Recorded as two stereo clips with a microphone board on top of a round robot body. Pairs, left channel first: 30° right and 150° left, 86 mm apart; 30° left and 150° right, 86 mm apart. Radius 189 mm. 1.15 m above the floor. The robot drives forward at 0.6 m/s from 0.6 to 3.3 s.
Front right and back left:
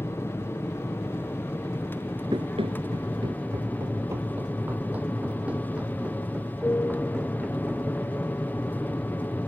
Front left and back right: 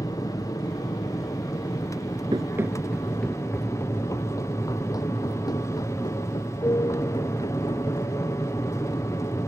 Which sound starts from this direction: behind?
Running footsteps, at 2.3 s.